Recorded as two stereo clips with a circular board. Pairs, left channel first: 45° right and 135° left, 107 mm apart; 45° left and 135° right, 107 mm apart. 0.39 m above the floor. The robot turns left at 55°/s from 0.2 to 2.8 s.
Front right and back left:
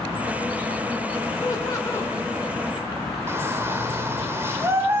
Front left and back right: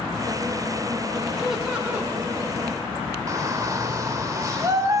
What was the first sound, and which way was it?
Laughter, 45° right.